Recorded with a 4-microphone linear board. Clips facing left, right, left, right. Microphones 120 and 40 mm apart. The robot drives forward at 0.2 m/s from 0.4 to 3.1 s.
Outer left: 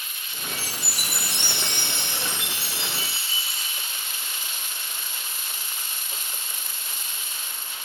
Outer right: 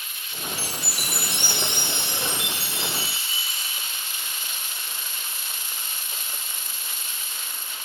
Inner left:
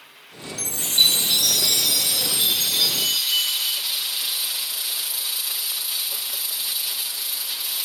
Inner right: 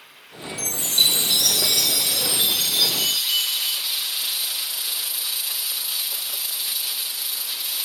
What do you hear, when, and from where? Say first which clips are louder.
0.6 s a chime: outer right 2 dB, inner left 1 dB; 15° right (ahead or behind), 1.0 m; by 3.8 s 10° right (ahead or behind), 1.4 m